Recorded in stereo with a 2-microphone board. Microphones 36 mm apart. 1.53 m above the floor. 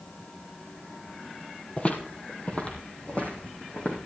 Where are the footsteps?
35° left (ahead or behind), 2.5 m; by 4.0 s 40° left (ahead or behind), 4.5 m.